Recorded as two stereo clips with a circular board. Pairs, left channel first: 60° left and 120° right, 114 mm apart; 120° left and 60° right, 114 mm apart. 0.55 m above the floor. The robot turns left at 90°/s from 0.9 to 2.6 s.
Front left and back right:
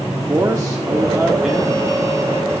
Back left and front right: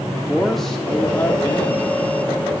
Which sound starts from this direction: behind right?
A man speaking, at 0.1 s.